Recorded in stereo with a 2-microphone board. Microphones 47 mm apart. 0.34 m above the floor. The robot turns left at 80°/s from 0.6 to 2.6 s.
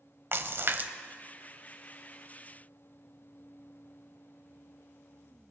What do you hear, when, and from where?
0.3 s a splash: 55° right (ahead or behind), 0.7 m; by 0.9 s 35° right (ahead or behind), 0.7 m